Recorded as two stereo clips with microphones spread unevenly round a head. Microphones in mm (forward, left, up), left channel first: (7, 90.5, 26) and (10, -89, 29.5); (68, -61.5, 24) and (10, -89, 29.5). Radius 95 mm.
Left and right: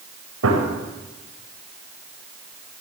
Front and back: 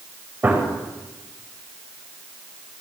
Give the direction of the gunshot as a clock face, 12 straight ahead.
3 o'clock.